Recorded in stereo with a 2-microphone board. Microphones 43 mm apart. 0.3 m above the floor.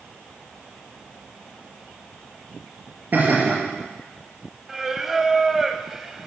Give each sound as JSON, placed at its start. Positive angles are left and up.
{"t": 3.1, "sound": "laughter", "side_deg": -40, "distance_m": 4.5}
{"t": 4.7, "sound": "singing", "side_deg": -10, "distance_m": 0.9}